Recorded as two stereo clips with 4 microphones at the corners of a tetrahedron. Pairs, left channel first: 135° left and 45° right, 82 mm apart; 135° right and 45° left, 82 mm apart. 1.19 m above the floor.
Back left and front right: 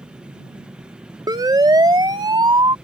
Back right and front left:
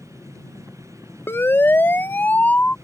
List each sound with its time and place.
0.0 s an aircraft: 100° right
1.3 s a siren: 75° right; by 2.8 s 65° right